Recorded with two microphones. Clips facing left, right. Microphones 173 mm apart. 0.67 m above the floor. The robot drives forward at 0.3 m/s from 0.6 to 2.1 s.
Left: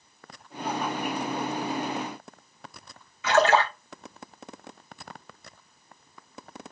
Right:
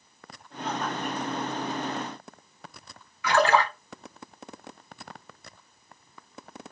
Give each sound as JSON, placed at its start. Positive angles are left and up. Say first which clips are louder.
{"t": 3.2, "sound": "a splash", "louder": "left 1 dB", "side_deg": 25, "distance_m": 0.8}